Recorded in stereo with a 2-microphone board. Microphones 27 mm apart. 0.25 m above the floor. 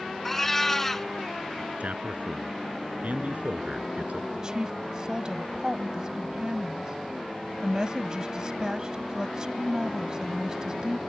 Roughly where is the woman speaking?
Right.